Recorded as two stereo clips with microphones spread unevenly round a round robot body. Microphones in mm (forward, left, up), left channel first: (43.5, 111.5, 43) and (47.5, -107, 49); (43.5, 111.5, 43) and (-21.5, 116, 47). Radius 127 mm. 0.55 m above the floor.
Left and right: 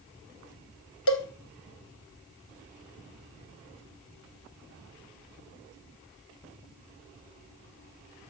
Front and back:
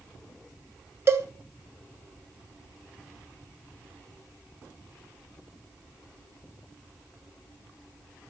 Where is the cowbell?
130° left, 1.2 m.